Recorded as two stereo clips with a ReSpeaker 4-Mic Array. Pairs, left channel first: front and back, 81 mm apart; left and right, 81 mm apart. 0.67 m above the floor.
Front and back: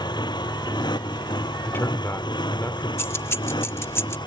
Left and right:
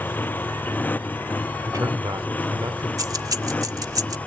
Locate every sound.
0.0 s a motorcycle: 25° left; by 4.3 s 20° left
1.6 s a man speaking: 60° right
3.0 s keys jangling: 55° right